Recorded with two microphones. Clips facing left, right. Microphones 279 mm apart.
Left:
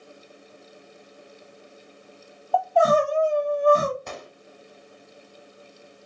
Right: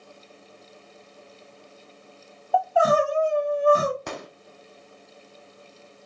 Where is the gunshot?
75° right (ahead or behind), 0.6 m.